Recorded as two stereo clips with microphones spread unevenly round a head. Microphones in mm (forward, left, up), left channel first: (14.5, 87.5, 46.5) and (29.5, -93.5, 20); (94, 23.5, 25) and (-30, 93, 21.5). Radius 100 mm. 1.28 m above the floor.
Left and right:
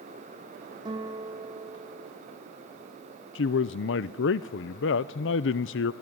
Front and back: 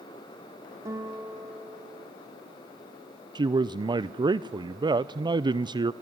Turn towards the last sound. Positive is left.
turn(degrees=95)